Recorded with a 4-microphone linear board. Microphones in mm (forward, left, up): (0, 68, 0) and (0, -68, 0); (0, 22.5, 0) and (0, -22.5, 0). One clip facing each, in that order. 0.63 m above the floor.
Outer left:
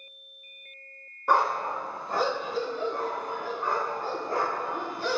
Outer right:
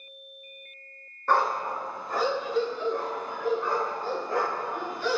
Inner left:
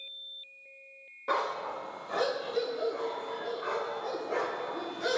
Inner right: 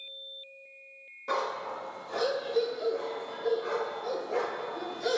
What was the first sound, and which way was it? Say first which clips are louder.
A dog barking: even, inner left 1 dB; 10° left (ahead or behind).